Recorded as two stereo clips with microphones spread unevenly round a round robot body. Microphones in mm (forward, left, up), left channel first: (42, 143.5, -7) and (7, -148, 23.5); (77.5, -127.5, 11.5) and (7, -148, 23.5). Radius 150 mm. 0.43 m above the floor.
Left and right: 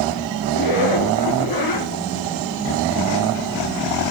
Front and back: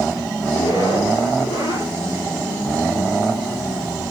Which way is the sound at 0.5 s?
65° left.